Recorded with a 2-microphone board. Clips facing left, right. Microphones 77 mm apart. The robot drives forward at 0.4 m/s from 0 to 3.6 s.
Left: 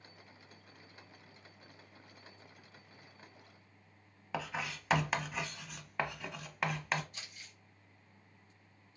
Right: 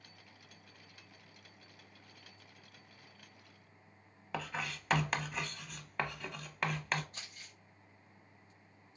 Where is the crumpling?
35° right (ahead or behind), 2.5 m.